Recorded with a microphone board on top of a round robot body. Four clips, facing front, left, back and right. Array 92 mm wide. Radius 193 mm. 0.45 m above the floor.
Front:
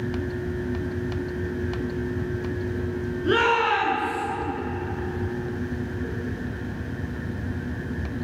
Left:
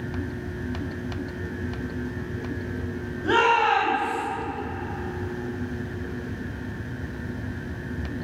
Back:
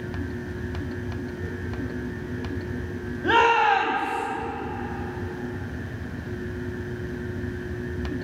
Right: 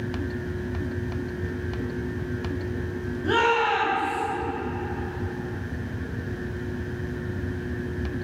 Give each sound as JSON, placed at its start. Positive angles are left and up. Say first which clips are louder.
{"t": 3.2, "sound": "a shout", "louder": "left 2 dB, back 3 dB", "azimuth_deg": 165, "distance_m": 5.5}